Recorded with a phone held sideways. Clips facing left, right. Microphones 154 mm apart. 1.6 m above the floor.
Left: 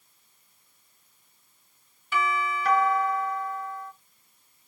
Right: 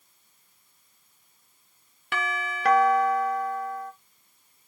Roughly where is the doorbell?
Right.